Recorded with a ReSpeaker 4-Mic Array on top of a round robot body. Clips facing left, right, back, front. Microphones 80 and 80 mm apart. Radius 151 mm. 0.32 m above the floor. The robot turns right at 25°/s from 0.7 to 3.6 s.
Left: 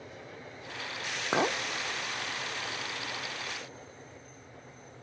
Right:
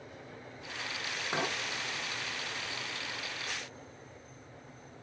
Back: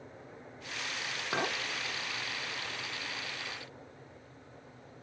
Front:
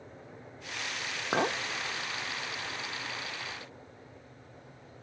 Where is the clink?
55° left, 0.6 m; by 1.6 s 65° left, 0.6 m.